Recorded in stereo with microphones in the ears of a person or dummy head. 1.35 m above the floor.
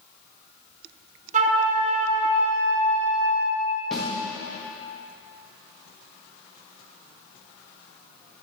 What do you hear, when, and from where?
1.3 s a flute: 45° right (ahead or behind), 1.1 m
3.9 s a snare drum: centre (ahead or behind), 1.6 m